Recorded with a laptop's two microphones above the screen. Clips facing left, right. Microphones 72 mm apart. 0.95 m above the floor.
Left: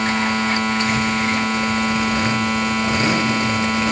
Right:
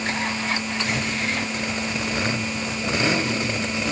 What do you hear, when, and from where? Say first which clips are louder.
0.0 s a machine running: left 7 dB; 65° left (ahead or behind)